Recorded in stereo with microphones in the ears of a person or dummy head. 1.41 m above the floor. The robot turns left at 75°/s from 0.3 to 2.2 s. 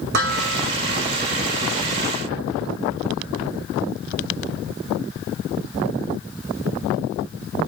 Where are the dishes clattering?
55° right (ahead or behind), 5 m; by 0.7 s 25° right (ahead or behind), 5 m.